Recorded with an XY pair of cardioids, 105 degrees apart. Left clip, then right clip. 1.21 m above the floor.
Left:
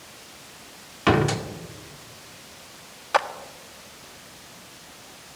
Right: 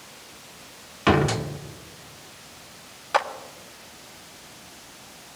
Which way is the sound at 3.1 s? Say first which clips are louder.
Left 1 dB; 10° left.